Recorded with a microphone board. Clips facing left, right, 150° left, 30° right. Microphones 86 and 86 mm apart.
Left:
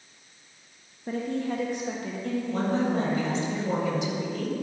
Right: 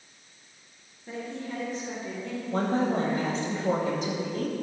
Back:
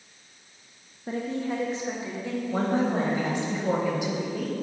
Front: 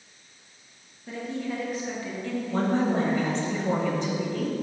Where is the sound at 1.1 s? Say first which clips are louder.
Left 7 dB, back 3 dB; 115° left, 0.7 m; by 3.5 s 60° left, 2 m.